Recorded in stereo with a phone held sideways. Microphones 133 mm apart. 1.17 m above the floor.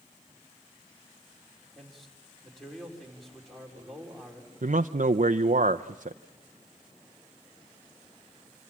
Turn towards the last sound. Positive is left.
turn(degrees=-70)  # may be behind; listen again after turning